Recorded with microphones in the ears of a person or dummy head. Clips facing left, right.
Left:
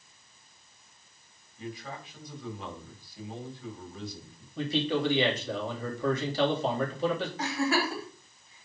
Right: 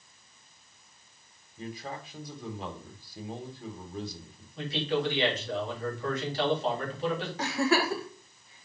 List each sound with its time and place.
1.6 s a man speaking: 35° right (ahead or behind), 2 m
4.6 s a man speaking: 85° left, 3 m
7.4 s a giggle: 60° right (ahead or behind), 1.4 m